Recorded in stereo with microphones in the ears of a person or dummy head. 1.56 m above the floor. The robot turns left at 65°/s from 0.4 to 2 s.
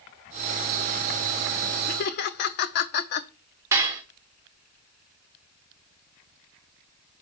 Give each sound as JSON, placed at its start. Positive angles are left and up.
{"t": 1.9, "sound": "laughter", "side_deg": 45, "distance_m": 0.6}
{"t": 3.7, "sound": "dishes clattering", "side_deg": -15, "distance_m": 0.8}